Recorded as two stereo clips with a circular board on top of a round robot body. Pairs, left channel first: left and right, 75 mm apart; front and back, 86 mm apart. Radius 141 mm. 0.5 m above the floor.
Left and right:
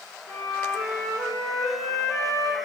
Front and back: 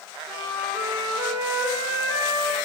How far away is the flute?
About 3 m.